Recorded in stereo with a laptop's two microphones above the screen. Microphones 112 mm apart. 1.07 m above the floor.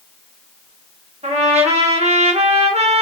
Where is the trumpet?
60° right (ahead or behind), 1.0 m.